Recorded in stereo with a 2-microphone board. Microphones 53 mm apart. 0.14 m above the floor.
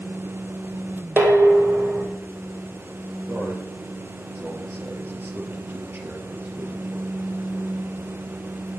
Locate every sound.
1.2 s dishes clattering: 45° right (ahead or behind), 3 m
3.3 s a man speaking: 40° right (ahead or behind), 3.5 m